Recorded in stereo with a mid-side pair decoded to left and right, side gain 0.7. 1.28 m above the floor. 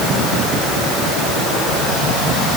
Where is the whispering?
I don't hear whispering.